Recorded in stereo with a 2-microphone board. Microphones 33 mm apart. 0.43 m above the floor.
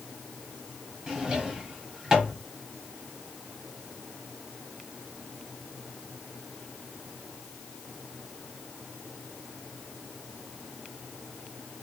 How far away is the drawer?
About 1.2 m.